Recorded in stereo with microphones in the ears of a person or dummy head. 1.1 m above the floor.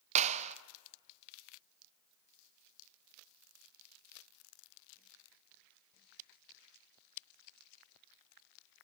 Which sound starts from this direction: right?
A clap, at 0.1 s.